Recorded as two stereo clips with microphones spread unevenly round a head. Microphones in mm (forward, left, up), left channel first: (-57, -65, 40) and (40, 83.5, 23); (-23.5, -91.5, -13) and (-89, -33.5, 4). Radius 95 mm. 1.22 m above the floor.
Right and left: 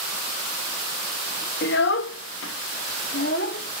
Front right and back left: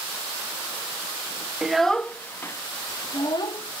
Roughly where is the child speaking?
Behind right.